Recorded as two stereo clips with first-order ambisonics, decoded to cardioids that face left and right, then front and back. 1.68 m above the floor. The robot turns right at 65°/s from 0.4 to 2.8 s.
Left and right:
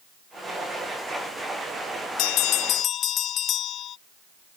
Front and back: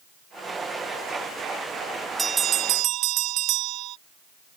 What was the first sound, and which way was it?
A bell, 105° left.